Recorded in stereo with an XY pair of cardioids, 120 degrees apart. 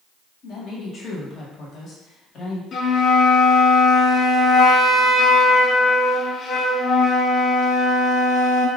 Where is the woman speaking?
45° left, 1.4 m.